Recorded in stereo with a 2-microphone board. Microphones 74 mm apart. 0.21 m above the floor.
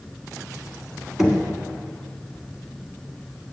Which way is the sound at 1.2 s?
5° right (ahead or behind).